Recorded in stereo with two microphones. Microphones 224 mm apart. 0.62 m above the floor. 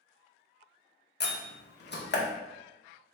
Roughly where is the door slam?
Left.